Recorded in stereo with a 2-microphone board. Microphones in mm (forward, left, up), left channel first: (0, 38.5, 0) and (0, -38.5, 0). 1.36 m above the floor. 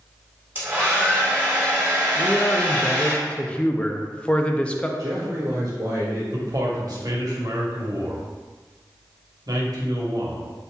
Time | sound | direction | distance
0.6 | a hair dryer | 25° right (ahead or behind) | 1.4 m
2.1 | a man speaking | 15° left (ahead or behind) | 0.5 m
5.0 | a man speaking | 55° right (ahead or behind) | 1.1 m
6.3 | a man speaking | 60° right (ahead or behind) | 1.1 m